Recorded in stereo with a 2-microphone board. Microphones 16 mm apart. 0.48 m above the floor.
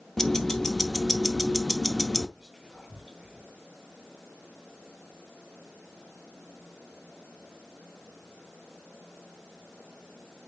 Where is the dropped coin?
I don't hear a dropped coin.